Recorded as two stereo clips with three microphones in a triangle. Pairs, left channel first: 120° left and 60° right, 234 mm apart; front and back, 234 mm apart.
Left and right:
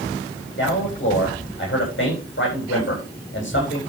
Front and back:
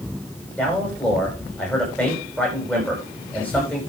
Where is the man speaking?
85° left, 9.5 m.